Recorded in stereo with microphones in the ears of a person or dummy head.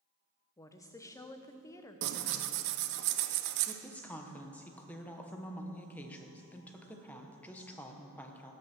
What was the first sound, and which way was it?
A woman speaking, 15° left (ahead or behind).